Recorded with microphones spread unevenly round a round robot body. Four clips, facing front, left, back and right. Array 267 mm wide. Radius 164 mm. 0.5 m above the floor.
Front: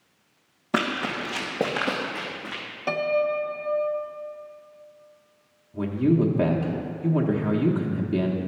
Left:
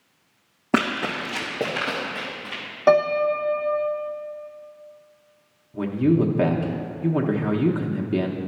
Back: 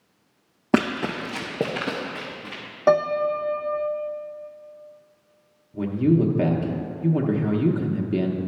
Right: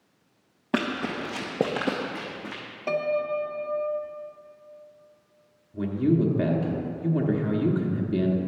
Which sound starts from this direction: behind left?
A piano, at 2.9 s.